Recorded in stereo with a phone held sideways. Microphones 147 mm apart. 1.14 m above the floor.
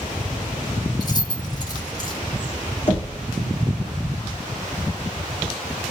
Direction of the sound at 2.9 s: 40° left (ahead or behind).